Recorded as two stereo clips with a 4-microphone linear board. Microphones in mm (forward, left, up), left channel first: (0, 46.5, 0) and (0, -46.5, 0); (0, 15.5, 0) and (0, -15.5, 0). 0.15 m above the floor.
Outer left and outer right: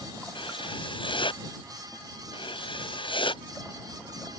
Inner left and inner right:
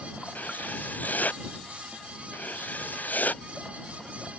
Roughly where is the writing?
Left.